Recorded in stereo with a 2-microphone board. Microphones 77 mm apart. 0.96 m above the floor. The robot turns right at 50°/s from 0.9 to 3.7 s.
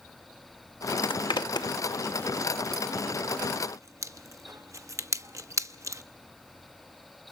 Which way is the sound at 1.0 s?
85° left.